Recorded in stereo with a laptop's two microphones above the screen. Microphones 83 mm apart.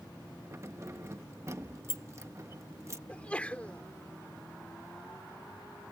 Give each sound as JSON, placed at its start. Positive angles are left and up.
{"t": 0.5, "sound": "keys jangling", "side_deg": -35}
{"t": 3.1, "sound": "a sneeze", "side_deg": 15}